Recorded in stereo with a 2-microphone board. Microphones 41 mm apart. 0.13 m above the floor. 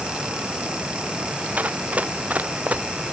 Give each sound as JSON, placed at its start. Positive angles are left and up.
{"t": 1.6, "sound": "running footsteps", "side_deg": -35}